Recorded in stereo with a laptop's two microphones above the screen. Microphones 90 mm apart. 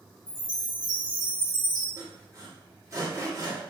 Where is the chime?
55° right (ahead or behind), 1.1 m.